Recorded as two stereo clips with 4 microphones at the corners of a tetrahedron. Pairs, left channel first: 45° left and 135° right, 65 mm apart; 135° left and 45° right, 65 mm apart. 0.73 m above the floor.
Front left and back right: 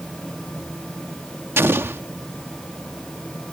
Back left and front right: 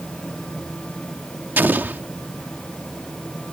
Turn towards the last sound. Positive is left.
turn(degrees=-95)